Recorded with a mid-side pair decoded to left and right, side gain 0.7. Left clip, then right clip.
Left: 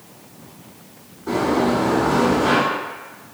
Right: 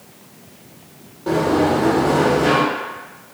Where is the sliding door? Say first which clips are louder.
Right 2 dB; 65° right, 1.3 m.